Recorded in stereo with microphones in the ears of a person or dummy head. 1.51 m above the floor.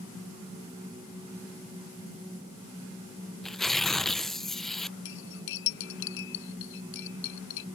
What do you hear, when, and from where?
3.4 s tearing paper: centre (ahead or behind)
5.0 s cutlery clinking: 70° left (ahead or behind)